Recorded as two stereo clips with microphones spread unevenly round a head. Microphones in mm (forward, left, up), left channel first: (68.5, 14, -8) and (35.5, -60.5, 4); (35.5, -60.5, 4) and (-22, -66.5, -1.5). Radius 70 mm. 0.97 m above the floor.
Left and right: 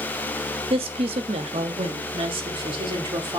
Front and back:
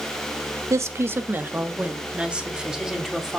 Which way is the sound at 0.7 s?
140° right.